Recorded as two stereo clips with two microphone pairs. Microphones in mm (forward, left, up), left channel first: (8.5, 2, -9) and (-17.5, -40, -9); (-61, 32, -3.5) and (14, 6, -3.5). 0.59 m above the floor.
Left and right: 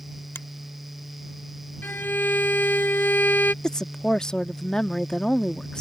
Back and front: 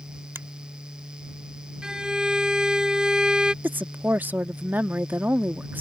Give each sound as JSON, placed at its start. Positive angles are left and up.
{"t": 0.3, "sound": "a finger snap", "azimuth_deg": 35}
{"t": 1.8, "sound": "a violin", "azimuth_deg": 60}
{"t": 3.6, "sound": "a woman speaking", "azimuth_deg": 5}